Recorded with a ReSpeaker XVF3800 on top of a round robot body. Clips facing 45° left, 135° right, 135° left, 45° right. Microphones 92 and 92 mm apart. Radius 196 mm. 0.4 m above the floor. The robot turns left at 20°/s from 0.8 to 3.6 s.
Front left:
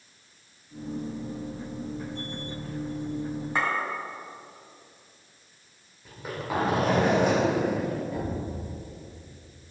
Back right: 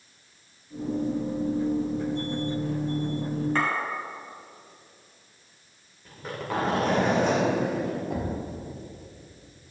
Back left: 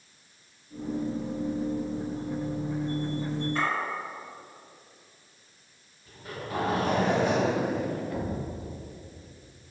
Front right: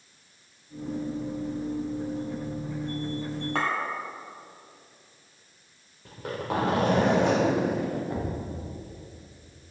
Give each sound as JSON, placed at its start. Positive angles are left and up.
{"t": 3.5, "sound": "a clink", "azimuth_deg": -35, "distance_m": 2.5}
{"t": 6.0, "sound": "a zipper", "azimuth_deg": -40, "distance_m": 2.0}
{"t": 8.1, "sound": "a thud", "azimuth_deg": -110, "distance_m": 1.0}